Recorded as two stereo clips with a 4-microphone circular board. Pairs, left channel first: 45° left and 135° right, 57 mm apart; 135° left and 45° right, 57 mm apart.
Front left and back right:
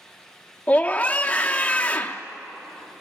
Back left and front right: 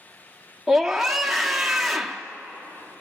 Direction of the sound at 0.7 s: 35° left.